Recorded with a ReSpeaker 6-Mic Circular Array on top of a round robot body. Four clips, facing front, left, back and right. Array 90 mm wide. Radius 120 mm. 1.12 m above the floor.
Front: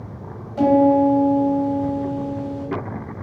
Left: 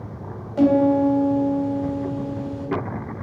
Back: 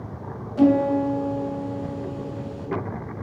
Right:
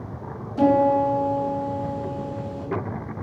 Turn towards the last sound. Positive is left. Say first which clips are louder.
# left 1 dB, front 4 dB
turn(degrees=85)